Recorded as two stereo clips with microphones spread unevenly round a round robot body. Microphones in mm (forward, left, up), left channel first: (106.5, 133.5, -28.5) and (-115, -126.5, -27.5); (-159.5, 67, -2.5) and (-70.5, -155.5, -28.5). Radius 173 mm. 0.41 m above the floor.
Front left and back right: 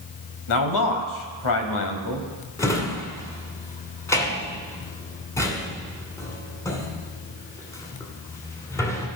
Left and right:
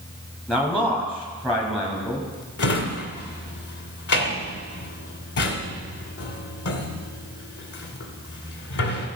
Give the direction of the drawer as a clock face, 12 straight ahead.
8 o'clock.